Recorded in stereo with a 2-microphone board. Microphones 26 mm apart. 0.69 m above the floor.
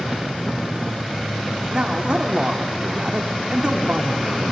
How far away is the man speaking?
About 1.8 m.